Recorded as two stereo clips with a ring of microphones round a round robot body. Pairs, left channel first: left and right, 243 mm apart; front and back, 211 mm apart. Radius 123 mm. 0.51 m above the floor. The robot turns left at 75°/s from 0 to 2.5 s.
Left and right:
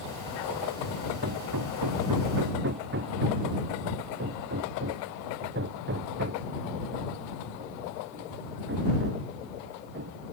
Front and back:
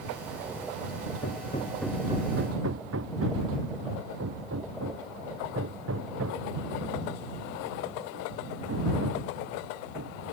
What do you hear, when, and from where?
1.2 s hammering: 40° right; by 10.2 s 140° right